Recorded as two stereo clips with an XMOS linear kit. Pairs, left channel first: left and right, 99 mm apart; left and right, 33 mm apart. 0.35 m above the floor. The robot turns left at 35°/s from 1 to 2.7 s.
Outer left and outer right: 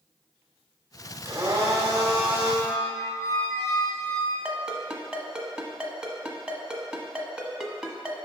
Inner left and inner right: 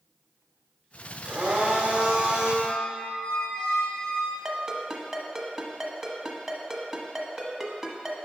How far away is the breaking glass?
I don't hear breaking glass.